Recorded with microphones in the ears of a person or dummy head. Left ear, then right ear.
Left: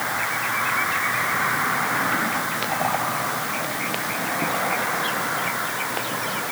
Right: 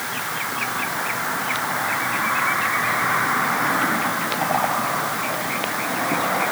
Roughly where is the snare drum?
No snare drum in this recording.